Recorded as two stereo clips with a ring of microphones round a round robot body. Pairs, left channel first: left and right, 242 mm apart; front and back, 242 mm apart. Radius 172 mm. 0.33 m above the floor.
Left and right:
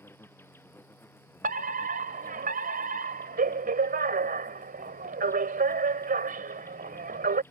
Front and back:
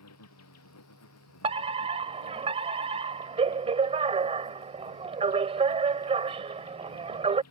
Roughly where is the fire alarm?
Behind right.